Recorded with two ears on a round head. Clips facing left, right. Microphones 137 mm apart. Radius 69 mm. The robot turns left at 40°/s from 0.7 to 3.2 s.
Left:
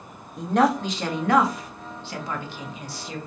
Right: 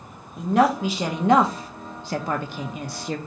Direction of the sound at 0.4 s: 5° right (ahead or behind).